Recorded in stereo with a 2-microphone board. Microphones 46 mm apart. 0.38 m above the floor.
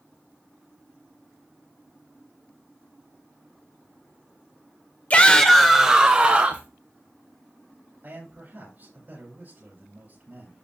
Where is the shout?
30° left (ahead or behind), 1.0 m; by 6.7 s 35° right (ahead or behind), 1.6 m.